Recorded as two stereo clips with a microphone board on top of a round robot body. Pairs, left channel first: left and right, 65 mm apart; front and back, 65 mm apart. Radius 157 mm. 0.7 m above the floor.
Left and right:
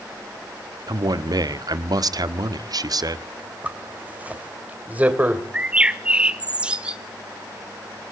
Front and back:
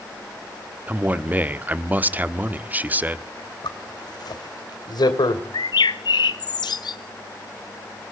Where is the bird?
15° right, 0.5 m.